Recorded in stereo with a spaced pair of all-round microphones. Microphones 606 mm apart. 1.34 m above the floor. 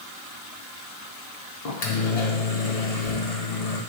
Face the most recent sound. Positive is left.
turn(degrees=75)  # may be behind; listen again after turning